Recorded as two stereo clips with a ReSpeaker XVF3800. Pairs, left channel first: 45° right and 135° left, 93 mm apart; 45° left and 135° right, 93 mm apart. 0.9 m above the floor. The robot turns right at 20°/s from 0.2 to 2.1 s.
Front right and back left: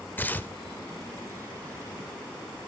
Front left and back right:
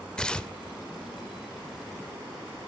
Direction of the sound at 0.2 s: 20° right.